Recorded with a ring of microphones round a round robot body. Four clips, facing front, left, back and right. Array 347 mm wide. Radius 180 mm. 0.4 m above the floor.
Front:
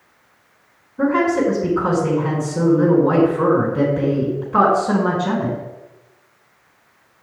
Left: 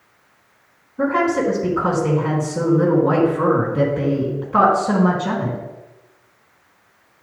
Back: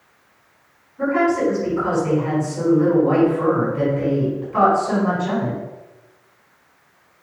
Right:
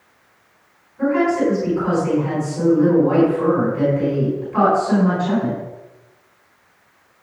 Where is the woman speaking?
40° left, 4.5 m.